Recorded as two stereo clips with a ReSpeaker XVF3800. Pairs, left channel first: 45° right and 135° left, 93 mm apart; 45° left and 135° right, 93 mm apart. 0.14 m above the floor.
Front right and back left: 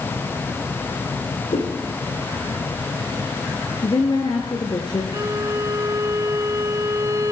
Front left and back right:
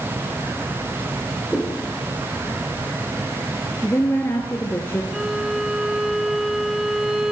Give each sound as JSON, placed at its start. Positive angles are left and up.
{"t": 1.5, "sound": "a whoosh", "azimuth_deg": -50, "distance_m": 7.5}
{"t": 3.8, "sound": "a woman speaking", "azimuth_deg": -15, "distance_m": 2.5}
{"t": 5.1, "sound": "a violin", "azimuth_deg": 140, "distance_m": 0.8}